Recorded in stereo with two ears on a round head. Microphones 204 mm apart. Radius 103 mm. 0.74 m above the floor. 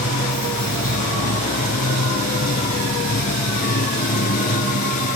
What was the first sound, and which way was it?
Running water, 40° left (ahead or behind).